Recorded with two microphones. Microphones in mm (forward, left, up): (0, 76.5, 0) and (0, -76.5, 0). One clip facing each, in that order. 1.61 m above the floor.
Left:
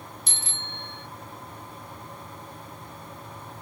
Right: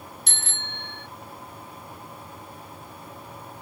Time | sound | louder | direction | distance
0.3 | a bicycle bell | right 1 dB | 80° right | ?